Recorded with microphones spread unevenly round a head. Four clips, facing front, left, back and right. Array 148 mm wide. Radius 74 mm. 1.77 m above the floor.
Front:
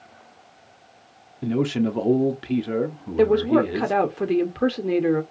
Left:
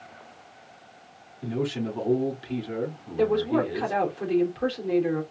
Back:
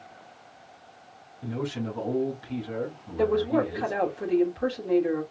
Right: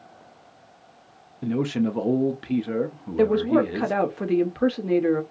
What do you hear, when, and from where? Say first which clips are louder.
1.4 s a man speaking: right 5 dB, front 9 dB; 35° right, 1.0 m
3.2 s a woman speaking: right 3 dB, front 6 dB; 30° right, 1.2 m